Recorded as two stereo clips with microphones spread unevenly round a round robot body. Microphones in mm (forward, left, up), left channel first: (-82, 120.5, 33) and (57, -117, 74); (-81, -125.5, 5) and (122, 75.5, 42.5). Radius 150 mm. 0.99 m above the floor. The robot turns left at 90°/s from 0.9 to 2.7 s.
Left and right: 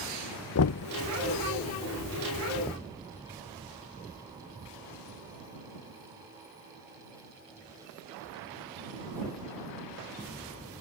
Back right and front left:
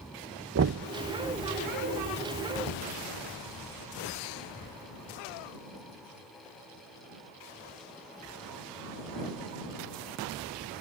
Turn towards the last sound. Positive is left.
turn(degrees=-155)